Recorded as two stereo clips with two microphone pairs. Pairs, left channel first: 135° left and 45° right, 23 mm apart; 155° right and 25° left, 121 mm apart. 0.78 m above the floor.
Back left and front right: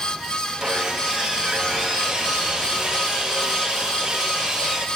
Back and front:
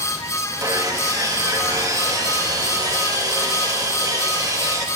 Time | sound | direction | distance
0.6 | sawing | 15° right | 1.4 m